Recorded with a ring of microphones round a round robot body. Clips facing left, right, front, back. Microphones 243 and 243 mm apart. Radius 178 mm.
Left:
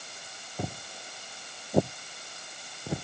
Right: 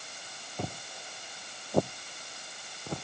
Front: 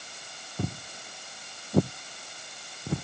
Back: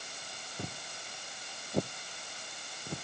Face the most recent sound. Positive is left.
turn(degrees=10)